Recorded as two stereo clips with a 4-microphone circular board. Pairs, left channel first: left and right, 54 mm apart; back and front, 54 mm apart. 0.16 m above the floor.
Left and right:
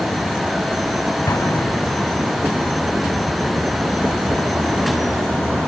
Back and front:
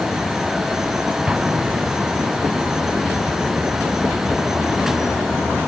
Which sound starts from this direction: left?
An explosion, at 1.3 s.